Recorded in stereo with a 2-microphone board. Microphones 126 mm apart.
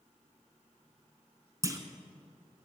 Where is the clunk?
25° right (ahead or behind), 0.8 m.